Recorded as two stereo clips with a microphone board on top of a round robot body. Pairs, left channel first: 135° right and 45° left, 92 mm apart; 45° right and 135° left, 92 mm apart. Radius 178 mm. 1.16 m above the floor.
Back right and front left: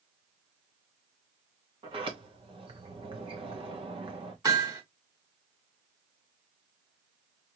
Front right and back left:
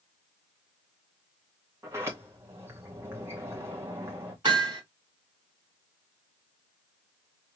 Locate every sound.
1.8 s a sliding door: 70° left, 0.9 m
4.5 s hammering: 95° left, 1.7 m